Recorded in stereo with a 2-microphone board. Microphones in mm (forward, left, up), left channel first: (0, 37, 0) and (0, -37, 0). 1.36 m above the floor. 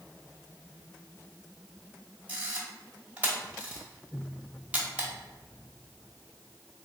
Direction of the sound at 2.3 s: 20° right (ahead or behind).